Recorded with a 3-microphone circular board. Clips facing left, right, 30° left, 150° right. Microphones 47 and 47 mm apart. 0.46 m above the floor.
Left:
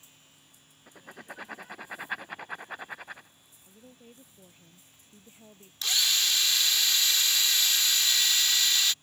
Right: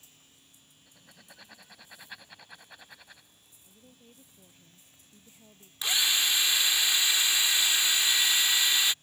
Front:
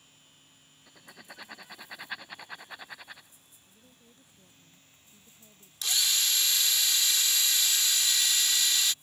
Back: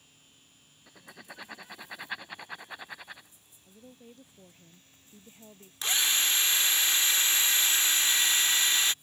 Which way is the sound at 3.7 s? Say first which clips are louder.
Left 5 dB, back 10 dB; 160° left.